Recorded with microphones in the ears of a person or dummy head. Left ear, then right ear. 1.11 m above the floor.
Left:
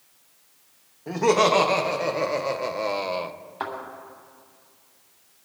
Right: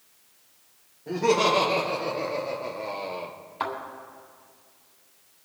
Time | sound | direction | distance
1.1 | laughter | 45° left (ahead or behind) | 1.6 m
3.6 | a thud | 5° right (ahead or behind) | 3.5 m